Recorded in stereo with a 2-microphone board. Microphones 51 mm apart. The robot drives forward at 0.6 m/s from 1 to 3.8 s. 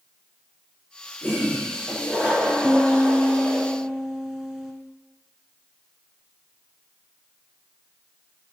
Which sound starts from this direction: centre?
A piano, at 2.6 s.